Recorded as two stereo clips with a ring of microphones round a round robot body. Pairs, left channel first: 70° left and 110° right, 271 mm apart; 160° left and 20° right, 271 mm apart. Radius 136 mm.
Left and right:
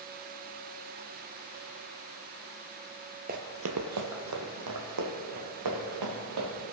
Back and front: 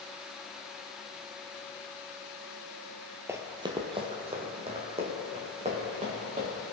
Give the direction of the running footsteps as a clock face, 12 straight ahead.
3 o'clock.